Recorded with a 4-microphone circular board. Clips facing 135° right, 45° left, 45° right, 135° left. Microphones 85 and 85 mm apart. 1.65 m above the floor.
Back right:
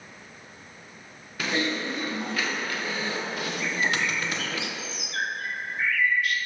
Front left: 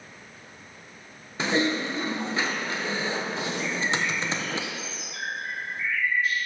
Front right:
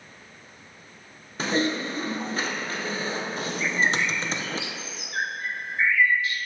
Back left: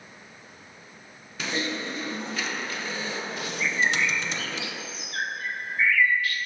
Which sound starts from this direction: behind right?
A bird, at 3.6 s.